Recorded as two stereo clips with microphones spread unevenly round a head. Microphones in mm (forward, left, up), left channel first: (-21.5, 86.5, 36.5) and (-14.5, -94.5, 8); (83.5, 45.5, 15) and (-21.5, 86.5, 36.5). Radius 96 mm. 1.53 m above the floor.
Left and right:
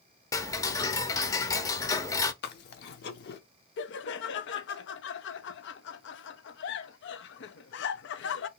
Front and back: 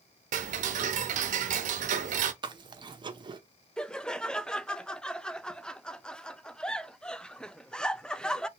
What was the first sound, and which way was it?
Ticking, 165° left.